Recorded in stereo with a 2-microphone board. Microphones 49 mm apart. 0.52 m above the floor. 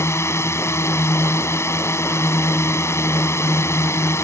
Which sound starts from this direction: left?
A drone, at 0.0 s.